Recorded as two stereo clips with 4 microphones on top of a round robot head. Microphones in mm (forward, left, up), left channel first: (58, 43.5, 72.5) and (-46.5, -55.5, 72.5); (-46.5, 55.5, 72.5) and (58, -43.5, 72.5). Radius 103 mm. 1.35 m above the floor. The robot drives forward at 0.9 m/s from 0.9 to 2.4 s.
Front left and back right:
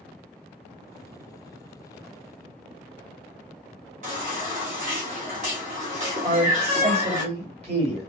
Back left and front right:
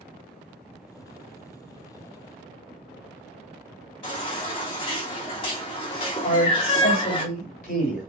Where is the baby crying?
170° right, 1.2 m.